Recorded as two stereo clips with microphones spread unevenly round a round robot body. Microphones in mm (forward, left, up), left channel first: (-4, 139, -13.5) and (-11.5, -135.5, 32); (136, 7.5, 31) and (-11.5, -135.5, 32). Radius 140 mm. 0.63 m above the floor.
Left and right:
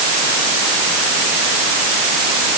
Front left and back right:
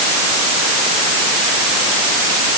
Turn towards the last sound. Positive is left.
No sound to turn to.